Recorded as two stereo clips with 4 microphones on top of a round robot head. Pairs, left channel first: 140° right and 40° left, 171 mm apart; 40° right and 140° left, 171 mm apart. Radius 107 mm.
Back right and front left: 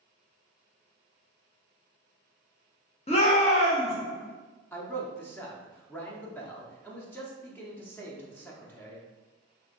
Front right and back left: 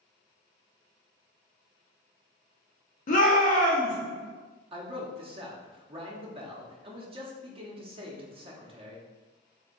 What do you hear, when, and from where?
3.1 s a shout: 85° right, 1.2 m
4.7 s a man speaking: 155° left, 0.8 m